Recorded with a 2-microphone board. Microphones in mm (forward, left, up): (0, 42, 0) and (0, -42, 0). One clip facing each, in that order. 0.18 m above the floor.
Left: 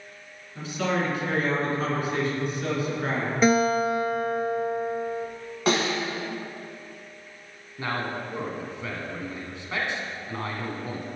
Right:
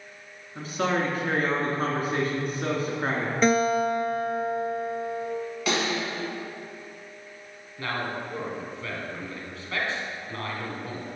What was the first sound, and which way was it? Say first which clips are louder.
A man speaking: right 1 dB; 45° right (ahead or behind).